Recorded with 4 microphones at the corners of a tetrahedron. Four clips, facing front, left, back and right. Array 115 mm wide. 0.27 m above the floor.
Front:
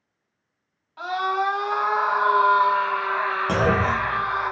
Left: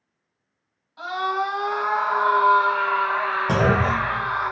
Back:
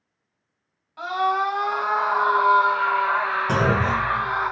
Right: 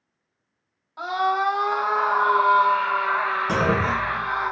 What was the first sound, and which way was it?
A scream, 85° right.